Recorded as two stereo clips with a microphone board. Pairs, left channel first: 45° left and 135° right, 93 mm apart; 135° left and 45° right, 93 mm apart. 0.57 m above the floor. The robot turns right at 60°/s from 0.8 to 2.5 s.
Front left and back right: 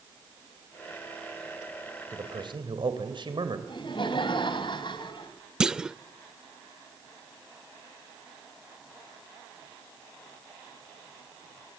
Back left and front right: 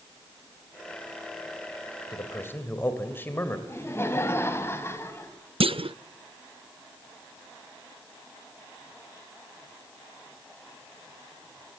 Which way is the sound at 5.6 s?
50° right.